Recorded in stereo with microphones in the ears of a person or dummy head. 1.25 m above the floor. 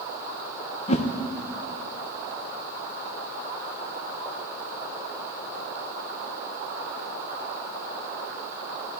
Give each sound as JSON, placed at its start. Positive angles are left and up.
{"t": 0.9, "sound": "a whoosh", "side_deg": 30, "distance_m": 0.7}